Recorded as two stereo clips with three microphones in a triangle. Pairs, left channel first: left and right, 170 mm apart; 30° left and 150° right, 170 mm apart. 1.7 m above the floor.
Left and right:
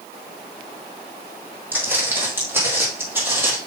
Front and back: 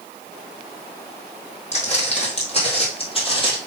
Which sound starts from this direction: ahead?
Footsteps, at 1.7 s.